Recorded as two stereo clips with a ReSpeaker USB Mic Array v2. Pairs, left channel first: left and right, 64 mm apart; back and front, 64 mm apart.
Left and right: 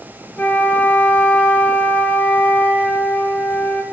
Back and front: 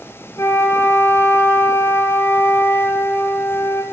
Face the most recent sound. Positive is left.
turn(degrees=155)